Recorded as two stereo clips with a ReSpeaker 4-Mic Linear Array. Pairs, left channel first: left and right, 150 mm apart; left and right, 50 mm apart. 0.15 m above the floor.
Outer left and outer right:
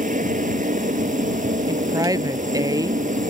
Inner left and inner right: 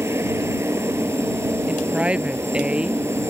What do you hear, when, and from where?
0.0 s a helicopter: 65° right (ahead or behind)
1.7 s a woman speaking: 25° right (ahead or behind)